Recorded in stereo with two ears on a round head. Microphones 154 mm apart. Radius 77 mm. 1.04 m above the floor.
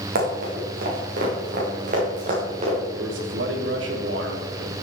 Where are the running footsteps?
60° right (ahead or behind), 5 m; by 2.8 s 40° right (ahead or behind), 6 m.